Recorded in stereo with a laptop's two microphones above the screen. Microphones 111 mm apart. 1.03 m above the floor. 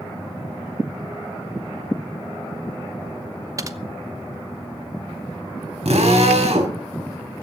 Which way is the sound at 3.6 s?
30° right (ahead or behind).